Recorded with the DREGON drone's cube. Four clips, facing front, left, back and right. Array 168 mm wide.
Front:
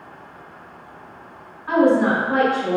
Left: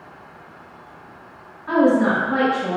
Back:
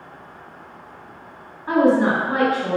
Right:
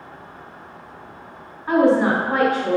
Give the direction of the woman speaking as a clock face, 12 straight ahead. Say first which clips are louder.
Even, even; 4 o'clock.